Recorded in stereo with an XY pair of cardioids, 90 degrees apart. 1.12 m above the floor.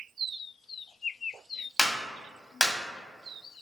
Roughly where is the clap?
Ahead left.